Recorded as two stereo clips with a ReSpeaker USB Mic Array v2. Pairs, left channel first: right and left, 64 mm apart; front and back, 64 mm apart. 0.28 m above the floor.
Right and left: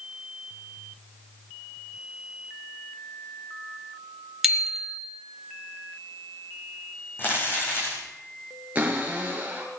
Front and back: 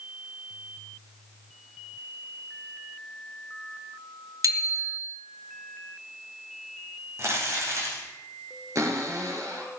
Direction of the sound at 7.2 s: 145° right.